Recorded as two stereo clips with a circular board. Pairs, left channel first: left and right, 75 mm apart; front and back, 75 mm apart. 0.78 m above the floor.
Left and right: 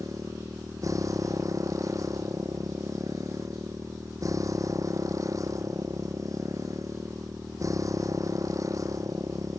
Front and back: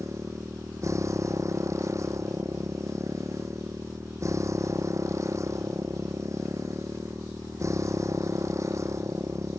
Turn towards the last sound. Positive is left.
turn(degrees=-130)